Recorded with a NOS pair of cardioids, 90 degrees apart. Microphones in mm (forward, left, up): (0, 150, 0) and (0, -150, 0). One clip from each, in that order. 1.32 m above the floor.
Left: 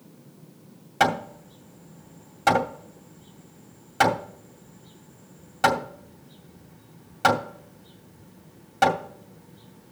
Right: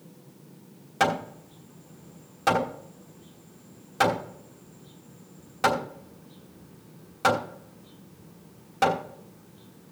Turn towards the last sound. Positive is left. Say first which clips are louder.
# left 2 dB
turn(degrees=15)